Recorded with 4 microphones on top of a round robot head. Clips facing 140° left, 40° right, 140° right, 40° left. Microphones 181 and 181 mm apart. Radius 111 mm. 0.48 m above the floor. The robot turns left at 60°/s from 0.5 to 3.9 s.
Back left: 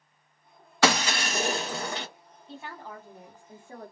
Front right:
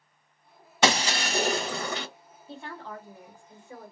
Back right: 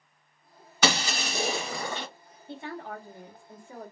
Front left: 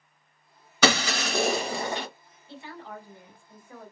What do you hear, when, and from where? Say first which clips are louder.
0.8 s breaking glass: even, front left 4 dB; 30° left, 0.9 m; by 2.1 s 45° right, 0.9 m
2.5 s a woman speaking: front right 2 dB, back right 4 dB; 125° right, 1.2 m; by 3.9 s 150° left, 1.2 m